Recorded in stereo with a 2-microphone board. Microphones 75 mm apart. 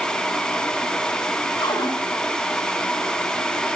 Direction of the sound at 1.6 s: 60° left (ahead or behind).